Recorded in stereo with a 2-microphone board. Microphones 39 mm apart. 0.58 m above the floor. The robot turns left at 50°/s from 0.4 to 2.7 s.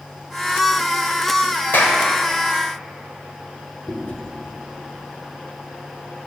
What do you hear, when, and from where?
1.7 s a clap: 65° left (ahead or behind), 1.7 m; by 2.0 s 75° left (ahead or behind), 1.7 m
3.9 s chewing: 60° left (ahead or behind), 1.8 m